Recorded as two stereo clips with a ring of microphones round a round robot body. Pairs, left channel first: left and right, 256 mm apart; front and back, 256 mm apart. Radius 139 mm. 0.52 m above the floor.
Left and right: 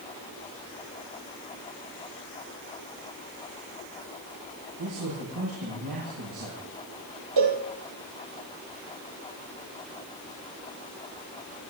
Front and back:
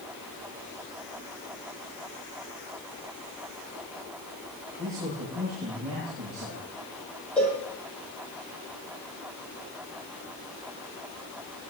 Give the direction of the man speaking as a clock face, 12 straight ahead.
3 o'clock.